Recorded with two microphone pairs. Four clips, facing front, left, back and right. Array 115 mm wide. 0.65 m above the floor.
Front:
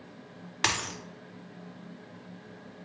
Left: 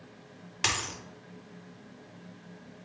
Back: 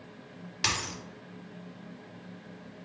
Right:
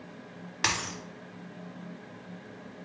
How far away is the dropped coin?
About 0.5 m.